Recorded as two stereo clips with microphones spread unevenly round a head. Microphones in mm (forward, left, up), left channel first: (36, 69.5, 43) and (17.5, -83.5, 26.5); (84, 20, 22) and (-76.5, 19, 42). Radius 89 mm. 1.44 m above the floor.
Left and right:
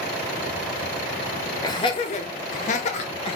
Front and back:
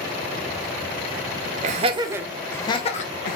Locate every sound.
1.6 s laughter: 150° left, 0.6 m; by 3.4 s 35° left, 0.7 m